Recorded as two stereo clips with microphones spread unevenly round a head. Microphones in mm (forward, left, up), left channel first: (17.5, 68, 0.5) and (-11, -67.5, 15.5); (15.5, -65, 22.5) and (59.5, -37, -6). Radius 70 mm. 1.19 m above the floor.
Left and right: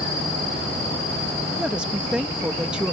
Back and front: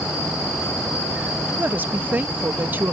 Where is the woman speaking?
15° right.